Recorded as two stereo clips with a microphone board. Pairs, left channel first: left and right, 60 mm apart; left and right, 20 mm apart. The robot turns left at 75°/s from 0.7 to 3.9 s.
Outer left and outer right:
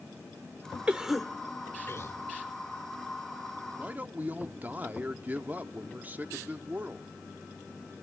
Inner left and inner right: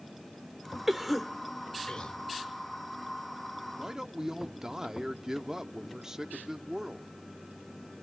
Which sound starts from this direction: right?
A man speaking, at 3.8 s.